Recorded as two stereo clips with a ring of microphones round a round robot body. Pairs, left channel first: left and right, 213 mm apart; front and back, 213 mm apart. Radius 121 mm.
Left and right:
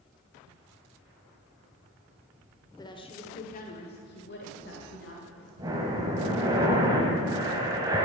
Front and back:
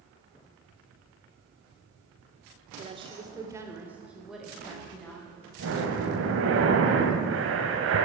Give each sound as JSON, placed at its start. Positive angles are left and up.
{"t": 2.8, "sound": "a woman speaking", "azimuth_deg": 150, "distance_m": 1.1}
{"t": 5.6, "sound": "breathing", "azimuth_deg": -165, "distance_m": 1.7}